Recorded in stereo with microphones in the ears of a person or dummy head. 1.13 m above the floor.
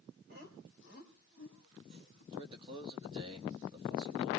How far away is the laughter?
About 4 m.